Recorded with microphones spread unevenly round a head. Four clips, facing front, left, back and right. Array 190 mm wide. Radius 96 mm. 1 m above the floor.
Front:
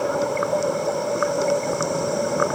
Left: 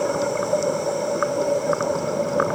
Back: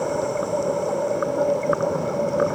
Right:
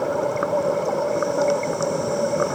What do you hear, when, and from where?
Only background noise.